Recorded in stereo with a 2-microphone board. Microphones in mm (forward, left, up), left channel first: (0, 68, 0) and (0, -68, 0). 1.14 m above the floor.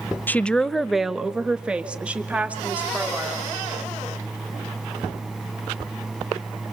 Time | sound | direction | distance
0.3 | a woman speaking | 15° left (ahead or behind) | 0.6 m